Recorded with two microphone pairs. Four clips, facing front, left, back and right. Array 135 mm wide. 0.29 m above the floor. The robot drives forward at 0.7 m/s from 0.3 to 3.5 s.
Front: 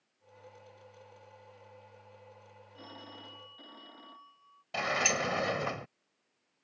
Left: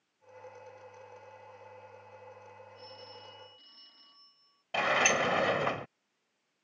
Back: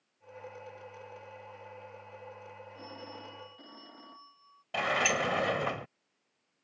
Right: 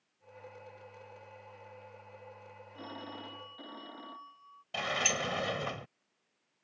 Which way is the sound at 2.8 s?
90° right.